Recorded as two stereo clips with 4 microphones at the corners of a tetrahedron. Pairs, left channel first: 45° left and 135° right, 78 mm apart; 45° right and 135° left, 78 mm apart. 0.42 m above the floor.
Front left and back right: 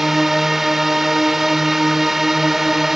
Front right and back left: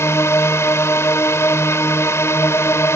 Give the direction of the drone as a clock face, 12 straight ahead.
2 o'clock.